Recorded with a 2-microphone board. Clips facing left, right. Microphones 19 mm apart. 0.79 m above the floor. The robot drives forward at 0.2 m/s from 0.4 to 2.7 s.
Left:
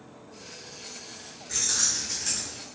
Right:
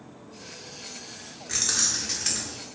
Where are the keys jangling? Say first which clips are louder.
Right 1 dB; 50° right (ahead or behind), 0.6 m; by 2.6 s 70° right (ahead or behind), 0.5 m.